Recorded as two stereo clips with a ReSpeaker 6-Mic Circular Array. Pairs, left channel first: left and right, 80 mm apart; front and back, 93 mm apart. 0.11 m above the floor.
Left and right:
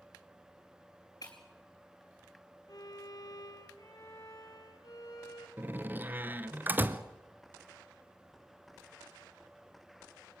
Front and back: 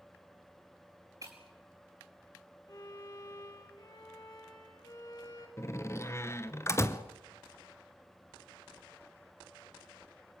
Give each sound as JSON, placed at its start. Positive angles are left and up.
{"t": 1.2, "sound": "breaking glass", "azimuth_deg": 130, "distance_m": 5.0}
{"t": 2.7, "sound": "a violin", "azimuth_deg": 45, "distance_m": 4.0}
{"t": 5.6, "sound": "a door slam", "azimuth_deg": -40, "distance_m": 1.2}